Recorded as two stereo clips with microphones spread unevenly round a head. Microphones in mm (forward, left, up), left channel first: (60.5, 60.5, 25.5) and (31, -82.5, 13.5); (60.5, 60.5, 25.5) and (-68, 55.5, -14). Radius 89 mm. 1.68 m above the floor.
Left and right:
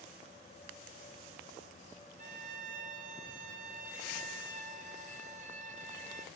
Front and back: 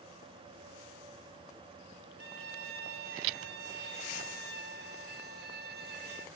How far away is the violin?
About 1.0 m.